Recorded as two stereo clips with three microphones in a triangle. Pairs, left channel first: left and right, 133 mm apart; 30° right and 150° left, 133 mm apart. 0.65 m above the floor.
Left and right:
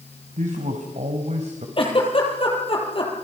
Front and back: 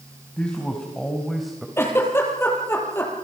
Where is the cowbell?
No cowbell in this recording.